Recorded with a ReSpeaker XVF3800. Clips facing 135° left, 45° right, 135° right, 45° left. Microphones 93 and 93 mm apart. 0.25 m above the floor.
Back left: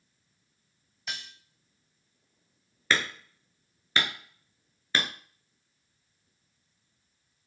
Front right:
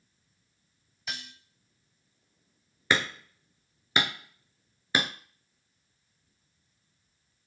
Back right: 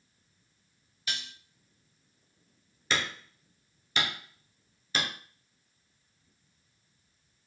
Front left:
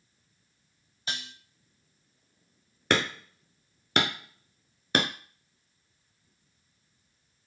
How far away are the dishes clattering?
About 0.7 m.